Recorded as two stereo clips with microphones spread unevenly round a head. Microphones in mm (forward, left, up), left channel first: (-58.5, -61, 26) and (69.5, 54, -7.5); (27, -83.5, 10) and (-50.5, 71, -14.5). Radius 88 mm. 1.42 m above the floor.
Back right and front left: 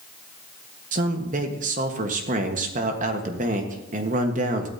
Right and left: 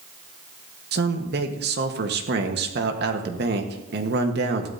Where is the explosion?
I don't hear an explosion.